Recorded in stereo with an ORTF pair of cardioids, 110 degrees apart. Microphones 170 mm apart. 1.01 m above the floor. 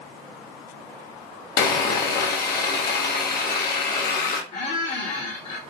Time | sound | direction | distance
1.6 | sawing | 65° left | 0.7 m
4.5 | a squeak | 45° left | 0.9 m